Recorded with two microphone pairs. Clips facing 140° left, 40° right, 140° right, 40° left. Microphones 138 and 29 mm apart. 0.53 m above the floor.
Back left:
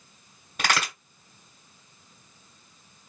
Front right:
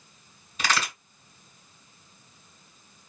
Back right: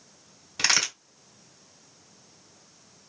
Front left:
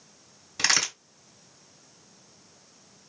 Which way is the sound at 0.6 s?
135° left.